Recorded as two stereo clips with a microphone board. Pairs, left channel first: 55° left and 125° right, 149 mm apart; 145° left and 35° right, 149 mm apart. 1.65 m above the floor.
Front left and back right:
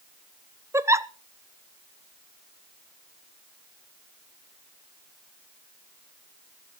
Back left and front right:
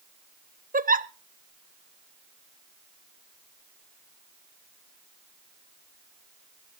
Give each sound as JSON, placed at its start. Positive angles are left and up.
{"t": 0.7, "sound": "a giggle", "azimuth_deg": -55, "distance_m": 0.6}